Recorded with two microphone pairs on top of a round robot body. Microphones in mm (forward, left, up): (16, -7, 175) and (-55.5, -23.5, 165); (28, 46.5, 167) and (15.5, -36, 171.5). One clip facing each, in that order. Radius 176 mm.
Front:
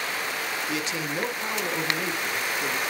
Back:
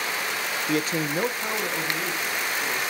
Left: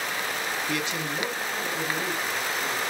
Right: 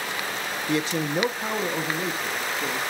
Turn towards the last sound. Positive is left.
turn(degrees=-60)